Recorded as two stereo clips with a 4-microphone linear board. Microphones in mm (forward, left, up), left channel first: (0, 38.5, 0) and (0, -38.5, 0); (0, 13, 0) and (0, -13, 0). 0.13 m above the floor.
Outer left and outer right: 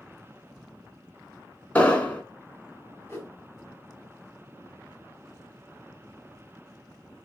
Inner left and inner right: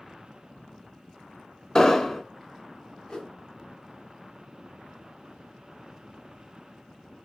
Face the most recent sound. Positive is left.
turn(degrees=30)  # may be behind; listen again after turning